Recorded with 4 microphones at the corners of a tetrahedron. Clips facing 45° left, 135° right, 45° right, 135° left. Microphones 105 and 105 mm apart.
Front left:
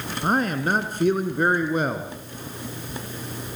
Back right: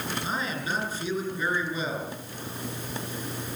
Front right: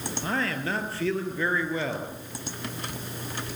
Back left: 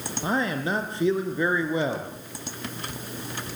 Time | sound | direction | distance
0.2 | a man speaking | 65° left | 2.5 m